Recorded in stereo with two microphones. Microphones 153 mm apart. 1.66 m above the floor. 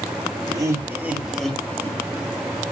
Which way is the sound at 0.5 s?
25° right (ahead or behind).